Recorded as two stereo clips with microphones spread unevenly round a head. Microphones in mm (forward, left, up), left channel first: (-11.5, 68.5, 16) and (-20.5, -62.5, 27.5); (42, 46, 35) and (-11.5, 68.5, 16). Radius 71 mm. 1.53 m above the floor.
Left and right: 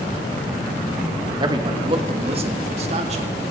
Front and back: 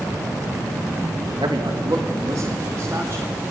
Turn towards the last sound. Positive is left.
turn(degrees=-130)